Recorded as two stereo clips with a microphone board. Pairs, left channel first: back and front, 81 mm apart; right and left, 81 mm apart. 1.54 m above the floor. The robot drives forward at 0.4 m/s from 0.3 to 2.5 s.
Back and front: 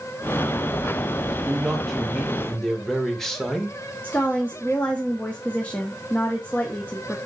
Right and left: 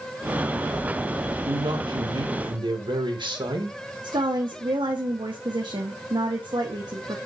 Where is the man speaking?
85° left, 2 m; by 3.8 s 95° left, 2 m.